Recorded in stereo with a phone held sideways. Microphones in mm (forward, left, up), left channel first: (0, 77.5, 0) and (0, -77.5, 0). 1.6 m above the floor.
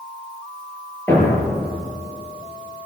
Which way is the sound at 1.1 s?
15° left (ahead or behind).